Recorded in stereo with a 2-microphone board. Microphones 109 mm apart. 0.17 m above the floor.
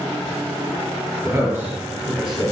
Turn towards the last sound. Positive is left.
turn(degrees=5)  # may be behind; listen again after turning